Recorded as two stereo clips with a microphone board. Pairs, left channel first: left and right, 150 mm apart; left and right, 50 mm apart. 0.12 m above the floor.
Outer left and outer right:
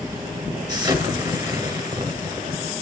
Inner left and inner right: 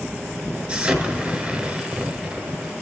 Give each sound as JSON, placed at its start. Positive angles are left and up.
{"t": 0.7, "sound": "an explosion", "side_deg": -25, "distance_m": 1.2}